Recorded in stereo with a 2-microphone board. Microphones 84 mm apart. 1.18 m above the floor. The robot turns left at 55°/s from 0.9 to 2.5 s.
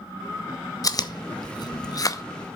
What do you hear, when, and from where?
0.8 s chewing: 40° left (ahead or behind), 0.6 m; by 2.2 s 35° left (ahead or behind), 0.6 m